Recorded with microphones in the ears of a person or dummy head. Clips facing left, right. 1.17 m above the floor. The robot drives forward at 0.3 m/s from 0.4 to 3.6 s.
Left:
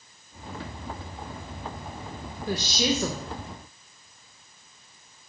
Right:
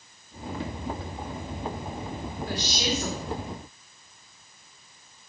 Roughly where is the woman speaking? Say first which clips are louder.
Left 5 dB; left.